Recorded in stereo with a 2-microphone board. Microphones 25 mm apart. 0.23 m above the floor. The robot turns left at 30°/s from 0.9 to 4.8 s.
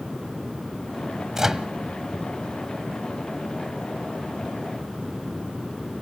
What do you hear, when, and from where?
1.4 s a microwave: 20° right (ahead or behind), 0.8 m